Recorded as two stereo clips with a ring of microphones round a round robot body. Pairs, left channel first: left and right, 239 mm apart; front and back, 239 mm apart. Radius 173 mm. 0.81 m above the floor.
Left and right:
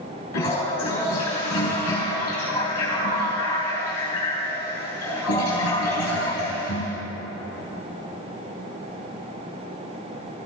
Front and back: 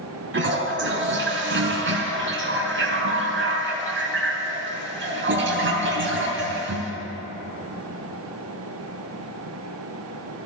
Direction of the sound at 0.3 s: 145° left.